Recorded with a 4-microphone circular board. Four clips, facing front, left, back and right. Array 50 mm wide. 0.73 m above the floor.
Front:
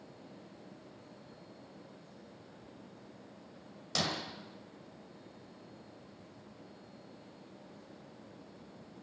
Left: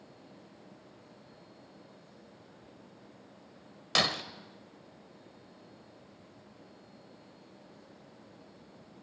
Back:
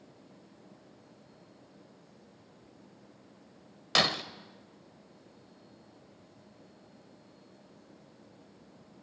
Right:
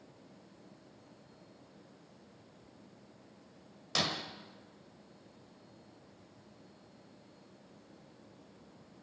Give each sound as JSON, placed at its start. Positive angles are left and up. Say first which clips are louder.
{"t": 4.0, "sound": "breaking glass", "louder": "left 5 dB, back 7 dB", "azimuth_deg": 145, "distance_m": 0.9}